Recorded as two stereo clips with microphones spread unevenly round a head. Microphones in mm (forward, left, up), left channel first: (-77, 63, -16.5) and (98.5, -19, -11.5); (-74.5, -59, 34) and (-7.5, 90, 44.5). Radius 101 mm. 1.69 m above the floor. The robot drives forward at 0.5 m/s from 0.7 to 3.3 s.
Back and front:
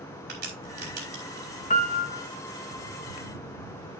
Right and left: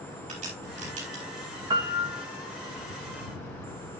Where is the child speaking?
I don't hear a child speaking.